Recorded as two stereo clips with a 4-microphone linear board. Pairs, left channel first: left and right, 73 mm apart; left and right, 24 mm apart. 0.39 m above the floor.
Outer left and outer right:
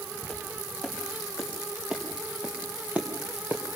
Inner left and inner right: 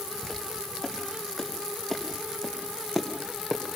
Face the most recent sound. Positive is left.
turn(degrees=-25)  # may be behind; listen again after turning